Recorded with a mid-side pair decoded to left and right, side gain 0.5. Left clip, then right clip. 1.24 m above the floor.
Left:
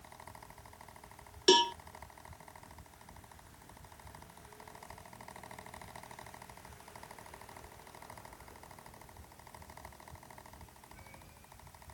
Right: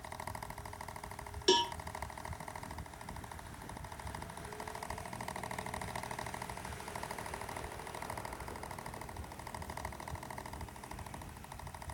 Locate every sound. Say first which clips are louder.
0.0 s a fan: right 8 dB; 45° right
1.5 s a cowbell: left 4 dB; 30° left